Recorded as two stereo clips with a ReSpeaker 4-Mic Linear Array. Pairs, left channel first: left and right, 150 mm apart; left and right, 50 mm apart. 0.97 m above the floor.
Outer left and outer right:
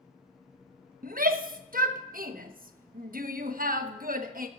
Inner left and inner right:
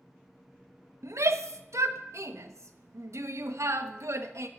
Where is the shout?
70° right (ahead or behind), 1.0 m.